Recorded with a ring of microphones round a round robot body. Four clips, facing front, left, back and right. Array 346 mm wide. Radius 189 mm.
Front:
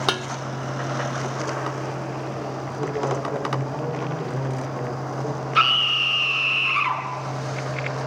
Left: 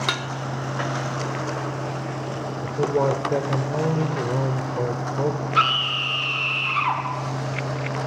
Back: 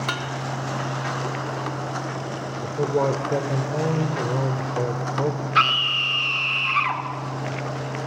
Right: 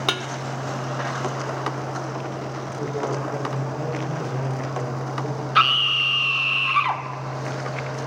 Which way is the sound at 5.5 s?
110° right.